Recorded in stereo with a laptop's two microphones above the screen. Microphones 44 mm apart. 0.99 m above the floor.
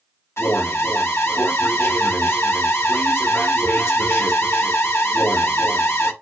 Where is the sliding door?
I don't hear a sliding door.